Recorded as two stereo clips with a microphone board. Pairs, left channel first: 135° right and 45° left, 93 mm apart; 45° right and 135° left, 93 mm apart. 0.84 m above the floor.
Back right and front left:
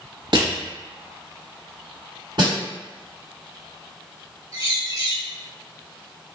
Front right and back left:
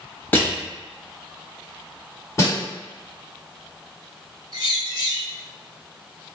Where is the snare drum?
10° left, 1.8 m.